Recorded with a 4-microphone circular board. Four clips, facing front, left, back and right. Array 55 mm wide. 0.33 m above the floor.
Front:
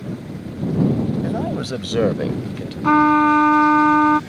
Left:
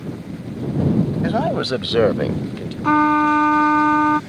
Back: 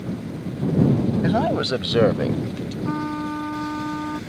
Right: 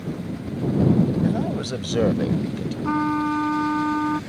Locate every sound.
1.2 s a man speaking: 125° left; by 2.7 s 30° left
2.8 s a trumpet: 35° left